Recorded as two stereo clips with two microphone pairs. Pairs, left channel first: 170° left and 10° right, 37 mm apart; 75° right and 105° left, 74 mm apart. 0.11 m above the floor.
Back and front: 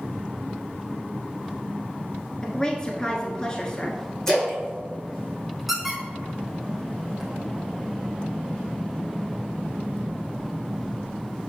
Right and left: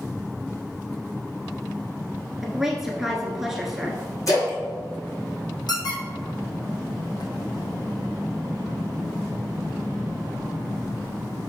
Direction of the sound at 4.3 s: 115° right.